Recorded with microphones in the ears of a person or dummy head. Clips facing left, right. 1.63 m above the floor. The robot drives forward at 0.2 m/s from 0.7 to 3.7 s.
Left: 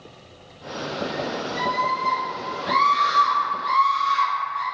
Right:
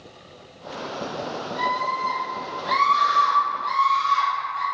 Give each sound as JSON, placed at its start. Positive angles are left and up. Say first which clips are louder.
{"t": 1.6, "sound": "a scream", "louder": "left 2 dB", "side_deg": 50, "distance_m": 1.8}